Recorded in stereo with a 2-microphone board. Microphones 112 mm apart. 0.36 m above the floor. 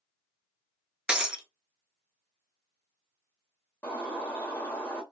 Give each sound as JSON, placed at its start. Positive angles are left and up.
{"t": 1.1, "sound": "breaking glass", "side_deg": -10, "distance_m": 0.7}
{"t": 3.8, "sound": "a bird", "side_deg": 15, "distance_m": 1.0}